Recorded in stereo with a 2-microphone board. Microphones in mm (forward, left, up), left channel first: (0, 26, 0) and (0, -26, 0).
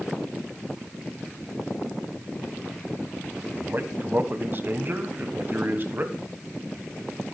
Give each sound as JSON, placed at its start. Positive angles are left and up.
{"t": 3.5, "sound": "a man speaking", "side_deg": -45, "distance_m": 1.4}